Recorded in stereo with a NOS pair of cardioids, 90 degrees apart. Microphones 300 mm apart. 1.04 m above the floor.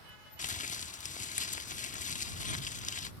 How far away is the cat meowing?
I don't hear a cat meowing.